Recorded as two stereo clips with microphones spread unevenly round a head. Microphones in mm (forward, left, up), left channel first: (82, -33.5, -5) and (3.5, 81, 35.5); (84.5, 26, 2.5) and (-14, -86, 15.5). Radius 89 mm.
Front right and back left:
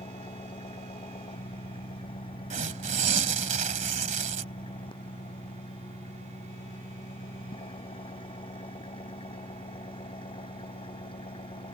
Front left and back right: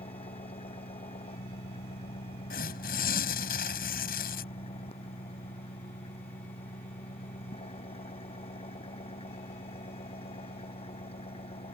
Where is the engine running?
Straight ahead.